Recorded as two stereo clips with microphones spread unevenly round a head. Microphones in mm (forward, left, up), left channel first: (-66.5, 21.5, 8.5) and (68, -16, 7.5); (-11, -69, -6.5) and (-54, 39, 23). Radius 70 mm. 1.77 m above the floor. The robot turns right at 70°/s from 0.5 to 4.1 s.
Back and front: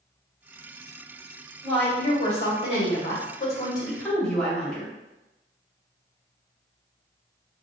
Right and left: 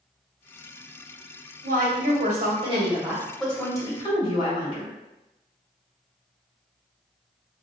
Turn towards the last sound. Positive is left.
turn(degrees=-110)